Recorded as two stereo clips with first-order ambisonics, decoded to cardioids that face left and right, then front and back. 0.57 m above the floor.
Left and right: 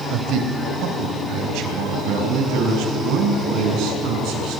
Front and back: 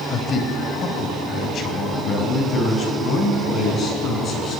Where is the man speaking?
60° right, 3 m.